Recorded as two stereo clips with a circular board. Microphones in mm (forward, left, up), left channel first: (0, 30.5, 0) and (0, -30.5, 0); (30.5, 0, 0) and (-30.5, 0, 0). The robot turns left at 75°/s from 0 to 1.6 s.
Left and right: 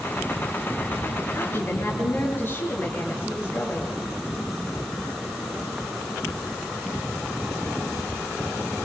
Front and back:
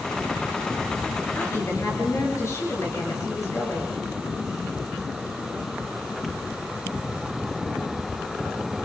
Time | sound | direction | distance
1.4 | a woman speaking | 55° left | 6 m